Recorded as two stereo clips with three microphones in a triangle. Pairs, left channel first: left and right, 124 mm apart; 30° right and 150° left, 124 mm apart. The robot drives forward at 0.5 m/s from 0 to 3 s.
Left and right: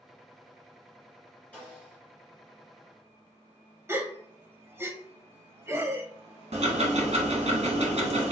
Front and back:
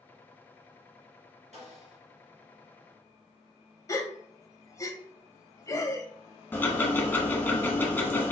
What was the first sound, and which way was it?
A snare drum, 170° left.